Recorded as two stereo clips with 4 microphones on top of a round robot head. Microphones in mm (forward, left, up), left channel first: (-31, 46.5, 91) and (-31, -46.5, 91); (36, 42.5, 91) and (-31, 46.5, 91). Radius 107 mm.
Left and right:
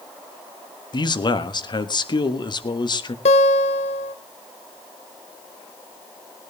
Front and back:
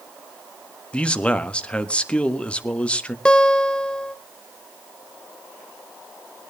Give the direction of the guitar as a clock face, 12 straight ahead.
10 o'clock.